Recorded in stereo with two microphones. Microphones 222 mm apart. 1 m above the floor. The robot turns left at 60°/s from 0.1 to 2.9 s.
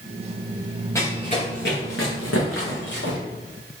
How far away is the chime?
I don't hear a chime.